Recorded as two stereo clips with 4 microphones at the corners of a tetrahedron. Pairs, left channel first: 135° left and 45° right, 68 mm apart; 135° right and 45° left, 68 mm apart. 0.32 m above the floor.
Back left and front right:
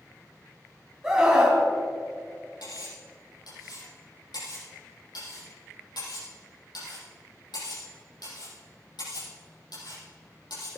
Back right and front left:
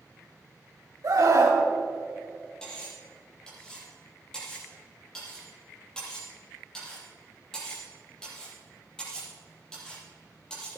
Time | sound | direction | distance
1.0 | a scream | 35° left | 2.5 m
2.6 | cutlery clinking | 145° left | 5.5 m